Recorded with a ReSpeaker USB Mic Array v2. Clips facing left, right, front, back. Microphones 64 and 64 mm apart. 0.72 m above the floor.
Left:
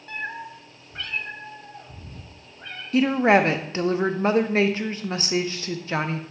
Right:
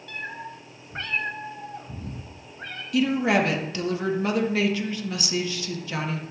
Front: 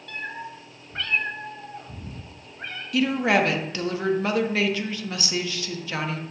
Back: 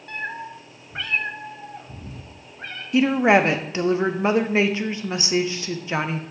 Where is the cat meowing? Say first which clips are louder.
Left 3 dB, back 3 dB; 135° left, 0.8 m; by 2.8 s 80° right, 2 m.